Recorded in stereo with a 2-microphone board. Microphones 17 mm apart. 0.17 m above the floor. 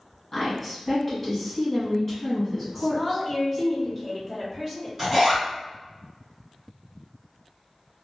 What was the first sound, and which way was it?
A woman speaking, 10° left (ahead or behind).